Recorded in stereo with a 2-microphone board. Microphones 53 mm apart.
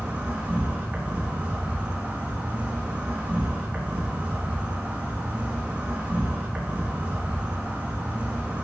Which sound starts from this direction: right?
An insect, at 0.0 s.